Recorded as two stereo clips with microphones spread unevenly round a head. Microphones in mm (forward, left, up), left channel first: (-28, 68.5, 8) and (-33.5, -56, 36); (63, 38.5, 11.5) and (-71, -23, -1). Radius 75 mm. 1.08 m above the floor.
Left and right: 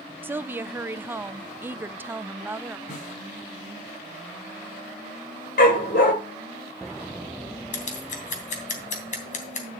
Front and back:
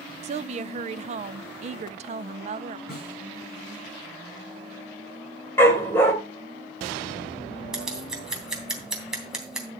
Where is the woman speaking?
175° right, 0.6 m.